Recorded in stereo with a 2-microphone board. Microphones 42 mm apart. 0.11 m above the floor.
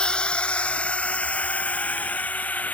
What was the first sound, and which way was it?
A drone, 20° left (ahead or behind).